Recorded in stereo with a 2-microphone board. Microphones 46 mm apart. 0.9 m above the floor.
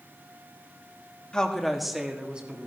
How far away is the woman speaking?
About 1.4 m.